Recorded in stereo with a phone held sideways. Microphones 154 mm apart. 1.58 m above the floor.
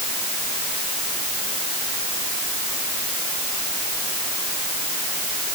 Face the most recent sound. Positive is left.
No sound to turn to.